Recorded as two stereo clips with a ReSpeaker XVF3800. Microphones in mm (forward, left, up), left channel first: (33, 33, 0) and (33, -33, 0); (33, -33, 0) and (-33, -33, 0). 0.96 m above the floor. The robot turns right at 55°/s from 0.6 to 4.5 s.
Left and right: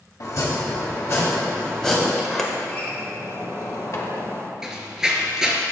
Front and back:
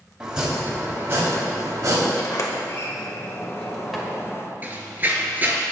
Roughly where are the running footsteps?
Behind.